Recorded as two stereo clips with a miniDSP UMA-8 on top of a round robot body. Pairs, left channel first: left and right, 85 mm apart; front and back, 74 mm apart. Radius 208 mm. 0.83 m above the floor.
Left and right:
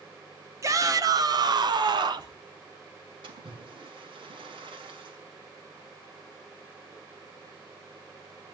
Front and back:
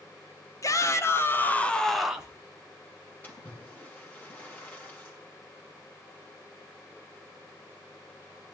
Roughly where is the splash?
Right.